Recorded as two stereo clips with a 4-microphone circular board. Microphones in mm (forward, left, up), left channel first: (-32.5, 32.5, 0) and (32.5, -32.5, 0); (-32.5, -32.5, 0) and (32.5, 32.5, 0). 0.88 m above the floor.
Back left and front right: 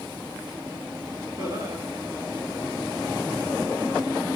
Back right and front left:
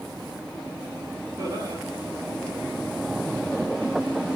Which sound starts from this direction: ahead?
Laughter, at 1.4 s.